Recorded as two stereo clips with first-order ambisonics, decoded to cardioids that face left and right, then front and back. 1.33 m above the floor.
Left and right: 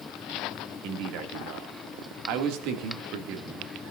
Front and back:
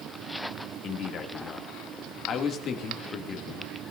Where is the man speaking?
60° right, 2.5 m.